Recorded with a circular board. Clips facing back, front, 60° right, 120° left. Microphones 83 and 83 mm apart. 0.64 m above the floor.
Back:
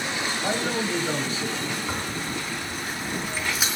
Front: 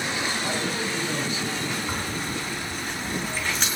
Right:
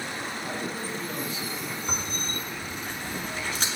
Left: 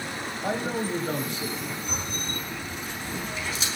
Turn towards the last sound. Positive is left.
turn(degrees=-95)